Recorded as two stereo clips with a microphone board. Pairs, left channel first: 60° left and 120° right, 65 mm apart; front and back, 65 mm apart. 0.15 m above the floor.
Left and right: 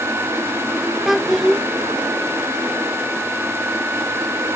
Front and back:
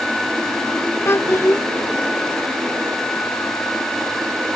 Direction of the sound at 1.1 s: 35° right.